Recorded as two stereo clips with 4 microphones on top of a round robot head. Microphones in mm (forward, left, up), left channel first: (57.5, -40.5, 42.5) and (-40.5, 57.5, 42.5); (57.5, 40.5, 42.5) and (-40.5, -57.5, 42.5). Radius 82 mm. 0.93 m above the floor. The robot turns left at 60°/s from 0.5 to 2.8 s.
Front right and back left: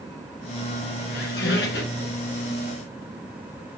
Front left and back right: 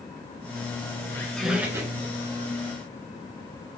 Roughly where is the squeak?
Ahead right.